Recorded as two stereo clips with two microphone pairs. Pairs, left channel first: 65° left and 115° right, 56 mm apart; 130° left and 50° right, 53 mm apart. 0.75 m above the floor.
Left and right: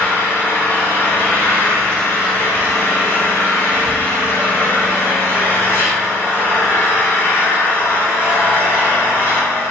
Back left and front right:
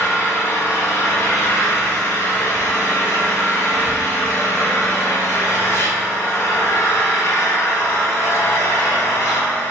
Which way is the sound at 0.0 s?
115° left.